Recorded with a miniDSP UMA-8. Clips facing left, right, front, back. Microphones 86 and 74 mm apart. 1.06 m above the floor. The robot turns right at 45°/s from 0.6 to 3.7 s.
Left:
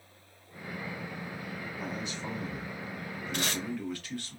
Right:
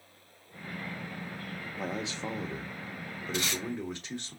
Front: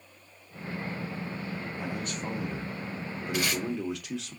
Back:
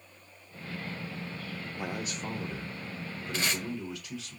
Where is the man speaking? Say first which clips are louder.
Right 4 dB, back 2 dB; 110° right, 1.2 m; by 4.3 s 20° right, 1.2 m.